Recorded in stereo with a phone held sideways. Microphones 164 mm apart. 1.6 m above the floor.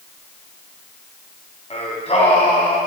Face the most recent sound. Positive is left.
turn(degrees=40)  # may be behind; listen again after turning